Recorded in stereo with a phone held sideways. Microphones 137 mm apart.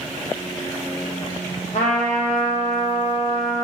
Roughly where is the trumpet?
Left.